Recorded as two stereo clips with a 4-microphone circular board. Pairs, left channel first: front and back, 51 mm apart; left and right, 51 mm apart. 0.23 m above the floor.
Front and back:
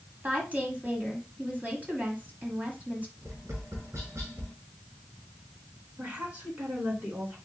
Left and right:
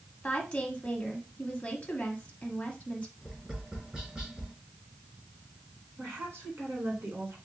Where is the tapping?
160° right, 2.5 m.